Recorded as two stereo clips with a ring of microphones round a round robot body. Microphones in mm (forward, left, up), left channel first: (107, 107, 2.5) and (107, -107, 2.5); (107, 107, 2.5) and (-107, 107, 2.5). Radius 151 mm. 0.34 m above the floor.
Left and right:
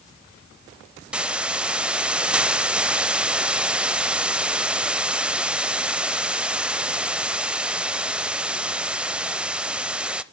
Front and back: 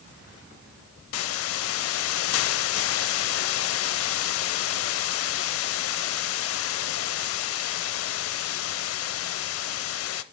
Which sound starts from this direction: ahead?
A hiss, at 1.1 s.